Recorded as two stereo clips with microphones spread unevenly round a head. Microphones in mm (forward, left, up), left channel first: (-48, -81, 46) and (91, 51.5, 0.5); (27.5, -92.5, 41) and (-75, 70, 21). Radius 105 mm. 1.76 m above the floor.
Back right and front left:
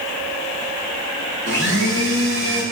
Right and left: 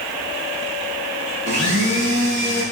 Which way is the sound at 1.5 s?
85° left.